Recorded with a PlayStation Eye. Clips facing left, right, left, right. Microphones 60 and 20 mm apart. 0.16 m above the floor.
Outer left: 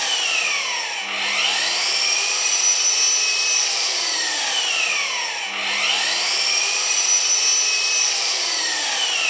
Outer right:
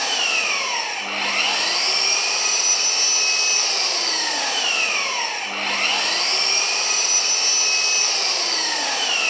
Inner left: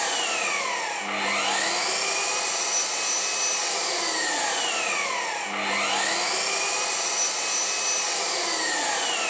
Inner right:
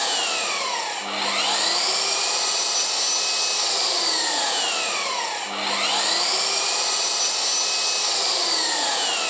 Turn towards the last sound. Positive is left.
turn(degrees=-45)  # may be behind; listen again after turning